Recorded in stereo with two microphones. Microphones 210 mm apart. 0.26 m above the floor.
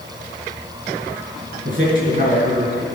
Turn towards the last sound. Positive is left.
turn(degrees=-40)  # may be behind; listen again after turning